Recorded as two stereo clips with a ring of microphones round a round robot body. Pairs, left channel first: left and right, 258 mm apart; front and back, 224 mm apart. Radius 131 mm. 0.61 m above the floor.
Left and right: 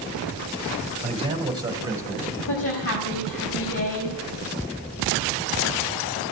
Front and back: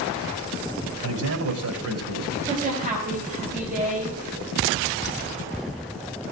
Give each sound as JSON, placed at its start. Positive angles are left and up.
{"t": 1.0, "sound": "a man speaking", "azimuth_deg": -155, "distance_m": 3.0}
{"t": 2.5, "sound": "a woman speaking", "azimuth_deg": 130, "distance_m": 4.0}